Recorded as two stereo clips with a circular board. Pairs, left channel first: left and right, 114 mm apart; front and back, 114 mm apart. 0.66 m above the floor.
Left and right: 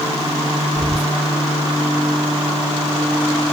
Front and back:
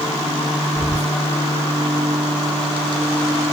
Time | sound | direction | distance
0.8 | whispering | 115° left | 1.1 m